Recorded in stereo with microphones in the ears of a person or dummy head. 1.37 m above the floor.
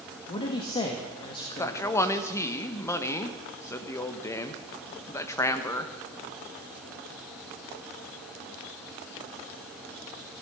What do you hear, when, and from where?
0.3 s a man speaking: 25° left (ahead or behind), 1.5 m
1.6 s a man speaking: 15° left (ahead or behind), 1.1 m